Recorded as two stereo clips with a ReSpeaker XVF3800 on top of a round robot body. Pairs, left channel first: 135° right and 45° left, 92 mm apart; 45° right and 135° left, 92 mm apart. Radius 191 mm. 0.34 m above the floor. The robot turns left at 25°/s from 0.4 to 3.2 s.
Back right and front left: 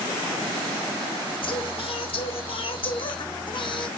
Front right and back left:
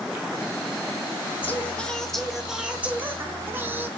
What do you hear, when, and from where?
1.4 s singing: 115° right, 2 m; by 3.9 s 160° right, 2 m